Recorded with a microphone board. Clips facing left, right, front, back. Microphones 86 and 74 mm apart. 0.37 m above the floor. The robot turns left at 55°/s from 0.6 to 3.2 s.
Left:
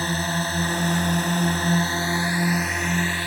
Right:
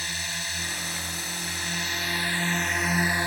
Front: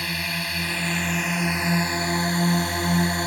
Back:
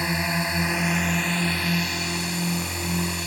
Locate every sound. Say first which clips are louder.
0.0 s a drone: left 10 dB, back 4 dB; 120° left; by 3.3 s 25° right